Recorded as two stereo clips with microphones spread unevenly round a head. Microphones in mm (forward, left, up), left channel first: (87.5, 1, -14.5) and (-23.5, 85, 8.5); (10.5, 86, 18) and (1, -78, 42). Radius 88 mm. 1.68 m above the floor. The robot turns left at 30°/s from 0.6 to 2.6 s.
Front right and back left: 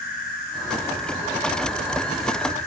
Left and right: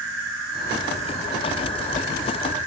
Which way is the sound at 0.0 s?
80° right.